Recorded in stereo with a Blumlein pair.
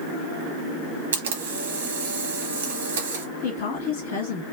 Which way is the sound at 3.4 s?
55° left.